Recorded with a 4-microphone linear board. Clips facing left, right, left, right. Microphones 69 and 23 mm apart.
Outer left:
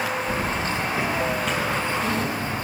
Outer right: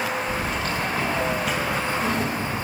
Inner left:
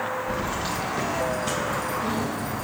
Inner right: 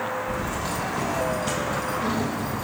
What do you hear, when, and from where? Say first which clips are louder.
0.3 s keys jangling: outer left 1 dB, even; 40° left (ahead or behind), 1.2 m; by 2.6 s 30° right (ahead or behind), 1.7 m